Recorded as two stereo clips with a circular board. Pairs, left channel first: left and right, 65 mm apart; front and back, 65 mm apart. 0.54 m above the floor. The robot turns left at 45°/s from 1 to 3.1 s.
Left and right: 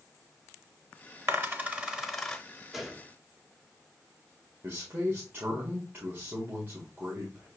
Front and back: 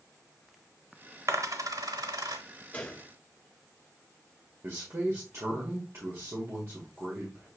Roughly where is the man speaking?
Behind right.